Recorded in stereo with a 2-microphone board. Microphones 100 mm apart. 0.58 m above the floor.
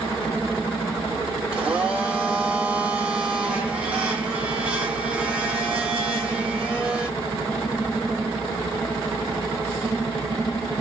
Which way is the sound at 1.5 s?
10° right (ahead or behind).